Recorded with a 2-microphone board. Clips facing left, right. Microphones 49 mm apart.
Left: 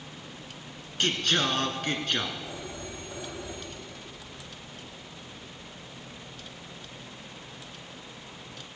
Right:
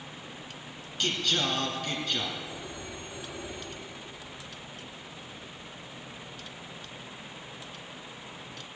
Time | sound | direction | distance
1.0 | singing | 50° left (ahead or behind) | 2.5 m
2.5 | a phone ringing | 85° left | 8 m